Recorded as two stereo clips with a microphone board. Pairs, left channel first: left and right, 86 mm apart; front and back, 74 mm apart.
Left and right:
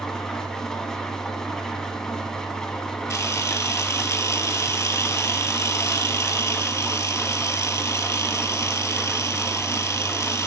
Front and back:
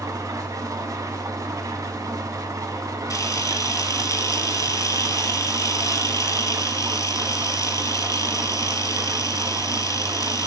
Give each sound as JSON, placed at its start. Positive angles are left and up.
{"t": 0.0, "sound": "an engine running", "azimuth_deg": 170, "distance_m": 1.1}
{"t": 3.1, "sound": "a camera shutter", "azimuth_deg": 40, "distance_m": 0.8}